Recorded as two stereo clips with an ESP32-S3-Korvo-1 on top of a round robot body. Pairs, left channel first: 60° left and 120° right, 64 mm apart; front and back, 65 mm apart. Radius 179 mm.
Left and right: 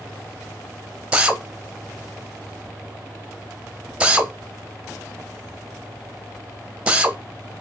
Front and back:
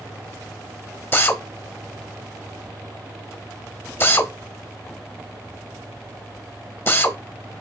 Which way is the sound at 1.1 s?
50° right.